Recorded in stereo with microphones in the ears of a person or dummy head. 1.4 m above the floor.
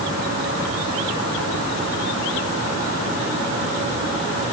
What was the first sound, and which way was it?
Only background noise.